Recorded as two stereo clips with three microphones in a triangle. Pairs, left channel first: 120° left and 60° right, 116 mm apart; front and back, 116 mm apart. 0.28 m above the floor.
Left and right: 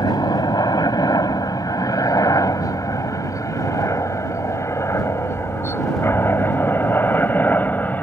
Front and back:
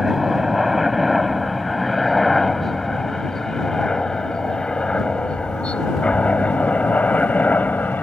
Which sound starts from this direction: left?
A helicopter, at 0.0 s.